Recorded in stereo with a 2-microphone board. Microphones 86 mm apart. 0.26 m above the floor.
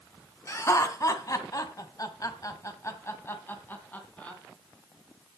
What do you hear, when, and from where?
0.5 s laughter: 35° left (ahead or behind), 2.5 m; by 4.4 s 15° left (ahead or behind), 3 m